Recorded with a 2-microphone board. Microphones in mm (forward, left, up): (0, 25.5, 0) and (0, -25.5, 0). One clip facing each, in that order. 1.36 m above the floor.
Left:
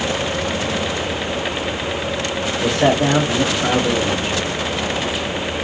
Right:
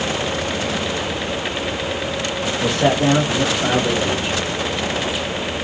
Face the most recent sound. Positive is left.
turn(degrees=-5)  # may be behind; listen again after turning